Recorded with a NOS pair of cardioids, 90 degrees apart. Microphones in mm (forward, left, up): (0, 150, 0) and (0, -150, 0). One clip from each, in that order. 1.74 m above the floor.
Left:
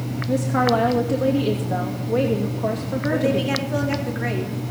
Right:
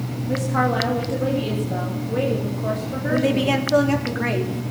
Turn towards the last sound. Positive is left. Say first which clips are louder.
# right 2 dB
turn(degrees=-30)